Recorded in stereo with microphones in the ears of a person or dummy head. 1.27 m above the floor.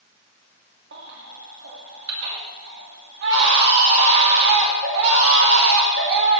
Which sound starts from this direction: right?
A baby crying, at 0.9 s.